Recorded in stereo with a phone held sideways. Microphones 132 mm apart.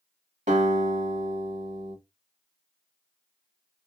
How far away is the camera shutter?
I don't hear a camera shutter.